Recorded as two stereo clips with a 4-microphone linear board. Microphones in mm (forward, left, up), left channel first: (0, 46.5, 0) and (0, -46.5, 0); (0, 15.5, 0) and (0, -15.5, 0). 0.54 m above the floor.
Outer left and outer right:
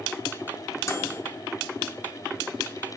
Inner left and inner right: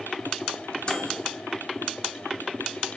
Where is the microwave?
30° left (ahead or behind), 0.9 m.